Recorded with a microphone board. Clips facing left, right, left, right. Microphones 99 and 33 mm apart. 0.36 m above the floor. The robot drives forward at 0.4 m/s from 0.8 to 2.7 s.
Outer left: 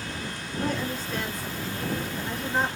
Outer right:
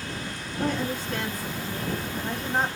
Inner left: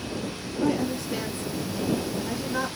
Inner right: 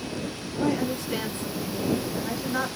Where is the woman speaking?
60° right (ahead or behind), 1.7 m; by 2.7 s 50° right (ahead or behind), 1.9 m.